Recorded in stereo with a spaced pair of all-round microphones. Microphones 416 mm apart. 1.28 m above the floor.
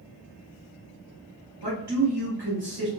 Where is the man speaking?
65° right (ahead or behind), 1.2 m.